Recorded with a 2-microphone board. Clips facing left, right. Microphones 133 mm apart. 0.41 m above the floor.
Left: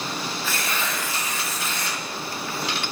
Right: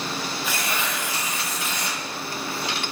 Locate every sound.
0.4 s tearing paper: 15° right (ahead or behind), 1.4 m